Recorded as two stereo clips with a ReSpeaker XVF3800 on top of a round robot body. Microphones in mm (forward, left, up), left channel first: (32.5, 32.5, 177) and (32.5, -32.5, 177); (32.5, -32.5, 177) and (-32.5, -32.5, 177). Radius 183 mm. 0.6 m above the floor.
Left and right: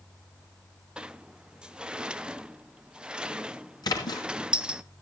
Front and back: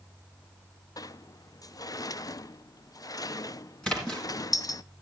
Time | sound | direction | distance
1.0 | a sliding door | 15° right | 0.7 m
3.8 | a splash | 80° left | 3 m